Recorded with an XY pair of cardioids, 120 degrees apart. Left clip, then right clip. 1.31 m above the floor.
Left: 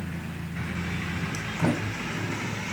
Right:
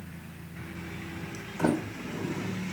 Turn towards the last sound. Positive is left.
turn(degrees=-5)